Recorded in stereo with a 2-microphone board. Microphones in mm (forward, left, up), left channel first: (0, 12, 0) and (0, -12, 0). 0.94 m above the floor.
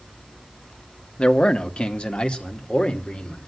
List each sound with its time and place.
1.2 s a man speaking: 55° left (ahead or behind), 1.4 m; by 3.4 s 60° left (ahead or behind), 3 m